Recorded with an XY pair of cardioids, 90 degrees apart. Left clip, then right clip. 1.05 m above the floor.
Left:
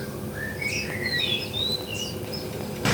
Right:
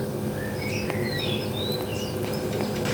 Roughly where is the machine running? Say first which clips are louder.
Right 3 dB; ahead right.